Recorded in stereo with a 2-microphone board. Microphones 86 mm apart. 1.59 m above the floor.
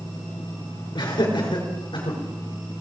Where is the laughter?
65° left (ahead or behind), 5 m; by 2.2 s 75° left (ahead or behind), 5.5 m.